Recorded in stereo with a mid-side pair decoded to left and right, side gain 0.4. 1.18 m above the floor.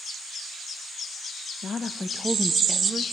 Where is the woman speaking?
50° left, 0.8 m; by 3.0 s 35° right, 1.2 m.